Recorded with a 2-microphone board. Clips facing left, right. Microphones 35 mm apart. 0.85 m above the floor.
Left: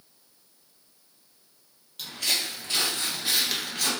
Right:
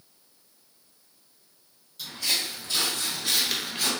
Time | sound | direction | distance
2.0 | footsteps | 60° left (ahead or behind) | 1.4 m